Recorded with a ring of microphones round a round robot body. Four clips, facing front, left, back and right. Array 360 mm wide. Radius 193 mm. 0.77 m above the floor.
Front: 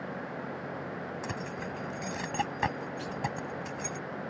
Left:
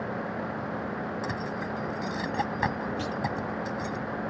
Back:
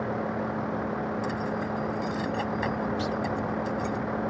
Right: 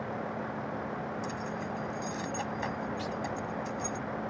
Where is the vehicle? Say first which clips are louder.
Left 3 dB, back 8 dB; 170° left.